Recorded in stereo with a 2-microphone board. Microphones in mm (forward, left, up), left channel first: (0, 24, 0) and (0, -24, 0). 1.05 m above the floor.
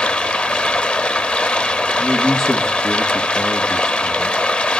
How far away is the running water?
About 0.8 m.